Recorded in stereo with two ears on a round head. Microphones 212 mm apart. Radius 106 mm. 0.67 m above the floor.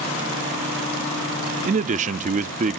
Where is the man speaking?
35° right (ahead or behind), 0.6 m.